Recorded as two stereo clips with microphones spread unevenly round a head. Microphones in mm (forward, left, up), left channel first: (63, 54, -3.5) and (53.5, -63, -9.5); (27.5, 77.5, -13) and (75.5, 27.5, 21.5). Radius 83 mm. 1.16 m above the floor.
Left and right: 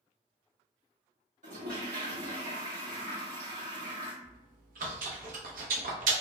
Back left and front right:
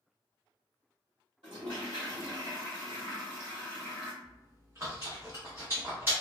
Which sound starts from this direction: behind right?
Chewing, at 4.2 s.